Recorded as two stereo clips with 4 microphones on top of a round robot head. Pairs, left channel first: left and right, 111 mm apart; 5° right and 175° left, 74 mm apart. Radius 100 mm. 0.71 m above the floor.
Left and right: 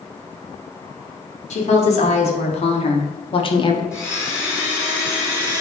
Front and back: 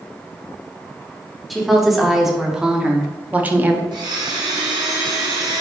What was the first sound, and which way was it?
A woman speaking, 85° left.